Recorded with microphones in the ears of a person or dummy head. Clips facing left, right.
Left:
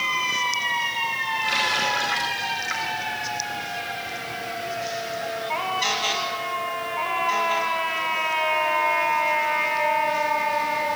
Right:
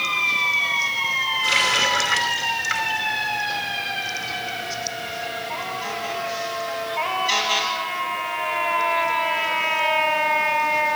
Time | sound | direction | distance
1.4 | a running tap | 35° right (ahead or behind) | 5 m